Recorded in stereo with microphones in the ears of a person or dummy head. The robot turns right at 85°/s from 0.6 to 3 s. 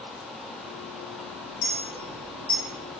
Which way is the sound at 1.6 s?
65° left (ahead or behind).